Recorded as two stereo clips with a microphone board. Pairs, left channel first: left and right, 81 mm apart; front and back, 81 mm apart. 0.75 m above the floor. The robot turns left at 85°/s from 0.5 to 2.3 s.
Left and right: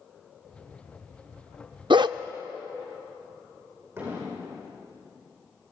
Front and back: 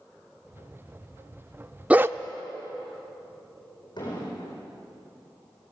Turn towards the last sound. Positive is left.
turn(degrees=-30)